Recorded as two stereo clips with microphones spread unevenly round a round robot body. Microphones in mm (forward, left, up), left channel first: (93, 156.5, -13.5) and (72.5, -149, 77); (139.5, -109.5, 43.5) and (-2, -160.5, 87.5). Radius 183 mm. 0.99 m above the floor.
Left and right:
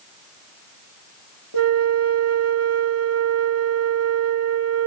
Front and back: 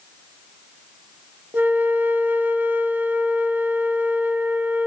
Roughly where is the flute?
Right.